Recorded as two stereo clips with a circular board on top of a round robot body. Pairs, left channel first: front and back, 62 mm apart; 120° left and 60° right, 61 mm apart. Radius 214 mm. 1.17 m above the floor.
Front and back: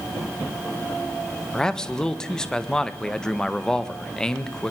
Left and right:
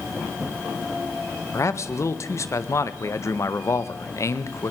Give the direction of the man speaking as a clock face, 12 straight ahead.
9 o'clock.